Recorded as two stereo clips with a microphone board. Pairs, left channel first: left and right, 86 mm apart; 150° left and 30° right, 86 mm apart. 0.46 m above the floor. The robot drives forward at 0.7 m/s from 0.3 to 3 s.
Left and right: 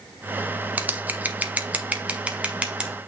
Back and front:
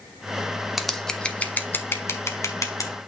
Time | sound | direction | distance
0.8 | scissors | 110° right | 1.1 m